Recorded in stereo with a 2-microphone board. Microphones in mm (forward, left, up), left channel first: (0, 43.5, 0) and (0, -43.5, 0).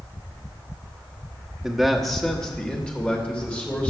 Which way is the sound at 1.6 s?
5° right (ahead or behind).